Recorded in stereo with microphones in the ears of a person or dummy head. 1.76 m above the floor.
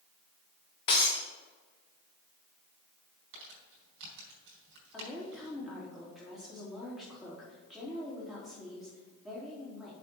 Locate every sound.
0.9 s breaking glass: 30° left (ahead or behind), 1.1 m
3.3 s crumpling: 65° right (ahead or behind), 4 m
4.9 s a woman speaking: centre (ahead or behind), 3.5 m